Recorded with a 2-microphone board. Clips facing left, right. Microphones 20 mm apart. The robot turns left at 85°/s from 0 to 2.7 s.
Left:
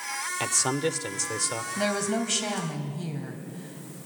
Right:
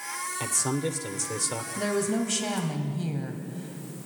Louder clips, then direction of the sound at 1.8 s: Even; 65° left.